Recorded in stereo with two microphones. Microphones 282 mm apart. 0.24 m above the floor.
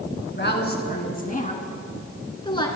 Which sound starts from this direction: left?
A woman speaking, at 0.4 s.